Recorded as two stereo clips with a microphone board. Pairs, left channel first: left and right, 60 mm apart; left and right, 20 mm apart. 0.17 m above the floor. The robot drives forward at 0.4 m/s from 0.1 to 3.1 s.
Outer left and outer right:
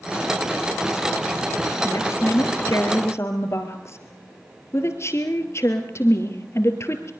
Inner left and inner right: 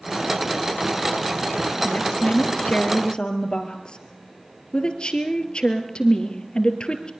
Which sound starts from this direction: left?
A woman speaking, at 1.8 s.